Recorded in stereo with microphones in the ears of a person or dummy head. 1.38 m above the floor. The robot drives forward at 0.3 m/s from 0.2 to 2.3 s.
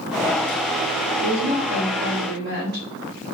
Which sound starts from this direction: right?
A woman speaking, at 1.2 s.